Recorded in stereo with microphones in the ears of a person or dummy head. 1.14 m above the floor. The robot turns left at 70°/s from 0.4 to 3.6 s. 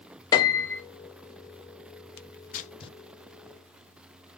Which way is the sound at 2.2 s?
65° left (ahead or behind).